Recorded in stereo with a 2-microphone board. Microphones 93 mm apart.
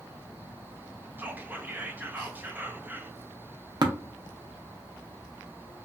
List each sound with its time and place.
1.2 s whispering: 20° right (ahead or behind), 0.5 m
3.8 s tapping: 50° right (ahead or behind), 0.5 m